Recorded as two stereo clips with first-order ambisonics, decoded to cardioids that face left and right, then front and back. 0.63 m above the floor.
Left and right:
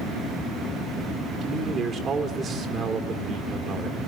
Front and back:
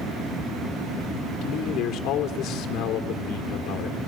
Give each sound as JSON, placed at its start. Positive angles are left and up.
{"t": 1.4, "sound": "a man speaking", "azimuth_deg": -30, "distance_m": 2.0}